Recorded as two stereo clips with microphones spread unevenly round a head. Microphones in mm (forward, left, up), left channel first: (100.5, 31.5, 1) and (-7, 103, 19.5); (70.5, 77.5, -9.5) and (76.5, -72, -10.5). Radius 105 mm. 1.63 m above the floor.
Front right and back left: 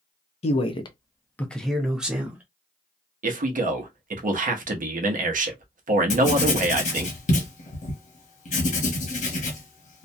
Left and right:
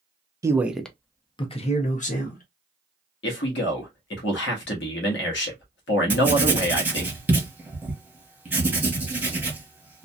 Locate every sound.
0.4 s a man speaking: 30° right, 0.6 m; by 2.4 s 75° left, 1.1 m
3.2 s a man speaking: 125° left, 0.9 m
6.1 s writing: 10° right, 1.0 m